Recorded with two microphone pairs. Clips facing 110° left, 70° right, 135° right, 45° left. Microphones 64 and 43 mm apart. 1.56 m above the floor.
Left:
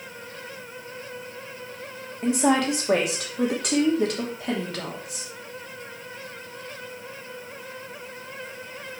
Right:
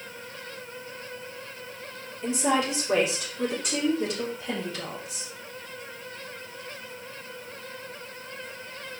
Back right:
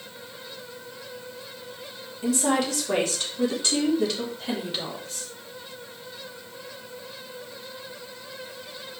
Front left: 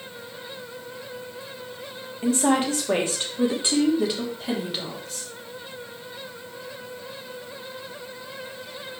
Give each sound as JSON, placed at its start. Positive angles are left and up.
{"t": 2.2, "sound": "a woman speaking", "azimuth_deg": 95, "distance_m": 3.0}